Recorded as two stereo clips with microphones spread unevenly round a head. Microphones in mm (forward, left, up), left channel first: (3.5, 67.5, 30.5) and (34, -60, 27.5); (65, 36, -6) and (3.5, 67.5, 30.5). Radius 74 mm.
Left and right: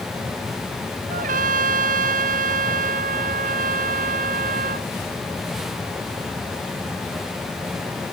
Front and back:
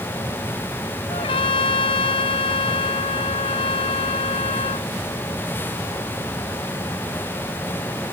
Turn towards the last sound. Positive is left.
turn(degrees=-55)